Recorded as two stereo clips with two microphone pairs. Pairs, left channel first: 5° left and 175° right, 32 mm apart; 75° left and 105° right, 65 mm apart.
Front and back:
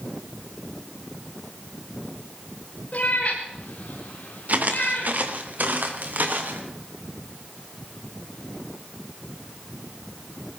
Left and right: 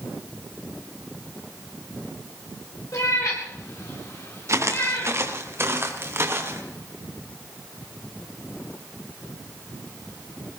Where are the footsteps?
145° right, 2 m; by 6.6 s 155° right, 4 m.